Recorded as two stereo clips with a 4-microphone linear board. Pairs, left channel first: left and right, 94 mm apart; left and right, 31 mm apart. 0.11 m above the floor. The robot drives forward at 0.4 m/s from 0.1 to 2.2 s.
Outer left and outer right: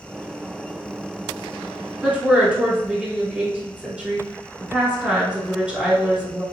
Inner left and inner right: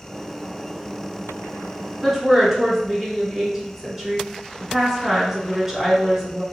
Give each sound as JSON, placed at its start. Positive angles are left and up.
{"t": 2.0, "sound": "a woman speaking", "side_deg": -15, "distance_m": 1.1}